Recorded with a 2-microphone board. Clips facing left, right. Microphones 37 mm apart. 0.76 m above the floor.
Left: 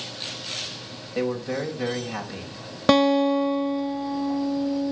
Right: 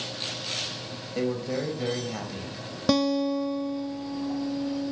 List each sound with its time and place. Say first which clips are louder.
1.1 s a man speaking: left 2 dB; 25° left (ahead or behind), 5 m
2.9 s a guitar: left 6 dB; 50° left (ahead or behind), 0.7 m